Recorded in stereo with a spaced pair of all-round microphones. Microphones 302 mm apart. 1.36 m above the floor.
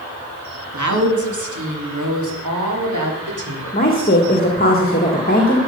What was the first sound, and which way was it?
A woman speaking, 70° right (ahead or behind).